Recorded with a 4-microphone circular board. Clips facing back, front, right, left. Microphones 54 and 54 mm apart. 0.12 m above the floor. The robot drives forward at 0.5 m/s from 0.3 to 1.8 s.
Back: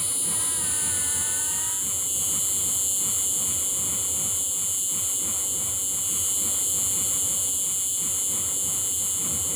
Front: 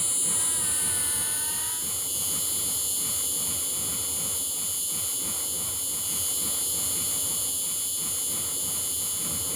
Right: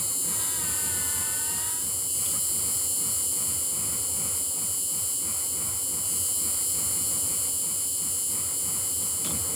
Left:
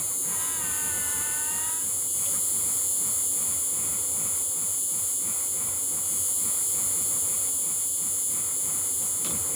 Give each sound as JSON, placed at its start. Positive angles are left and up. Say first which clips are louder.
{"t": 0.0, "sound": "an insect", "louder": "back 1 dB, even", "azimuth_deg": -90}